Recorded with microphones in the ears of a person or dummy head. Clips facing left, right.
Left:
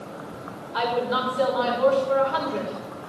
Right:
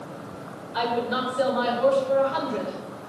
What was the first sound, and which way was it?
A woman speaking, 20° right (ahead or behind).